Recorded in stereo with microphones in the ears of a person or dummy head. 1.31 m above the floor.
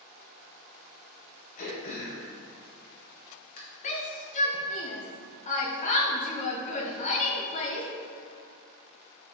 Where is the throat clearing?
45° left (ahead or behind), 1.6 m.